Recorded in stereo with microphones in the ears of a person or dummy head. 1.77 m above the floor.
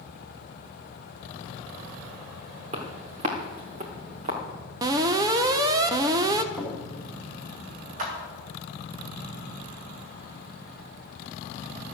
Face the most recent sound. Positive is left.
turn(degrees=-50)  # may be behind; listen again after turning